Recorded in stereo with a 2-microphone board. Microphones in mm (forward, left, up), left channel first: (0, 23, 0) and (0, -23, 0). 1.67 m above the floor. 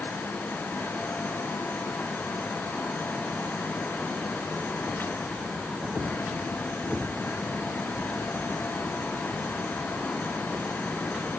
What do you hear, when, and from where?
Only background noise.